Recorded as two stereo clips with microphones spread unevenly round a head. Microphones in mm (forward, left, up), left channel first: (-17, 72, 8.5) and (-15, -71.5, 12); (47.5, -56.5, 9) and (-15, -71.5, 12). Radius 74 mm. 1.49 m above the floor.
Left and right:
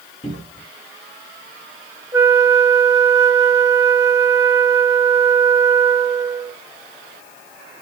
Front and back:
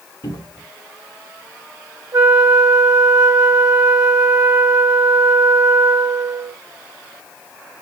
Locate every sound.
0.2 s a cupboard door: 30° left, 2 m
2.1 s a flute: 155° right, 2.5 m